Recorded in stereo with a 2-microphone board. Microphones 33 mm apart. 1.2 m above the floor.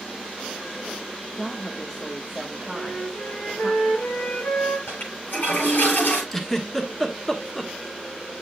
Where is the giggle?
15° left (ahead or behind), 1.4 m.